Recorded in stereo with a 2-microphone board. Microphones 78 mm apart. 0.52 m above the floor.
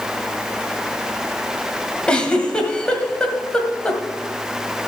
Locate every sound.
2.1 s a giggle: 10° left (ahead or behind), 1.6 m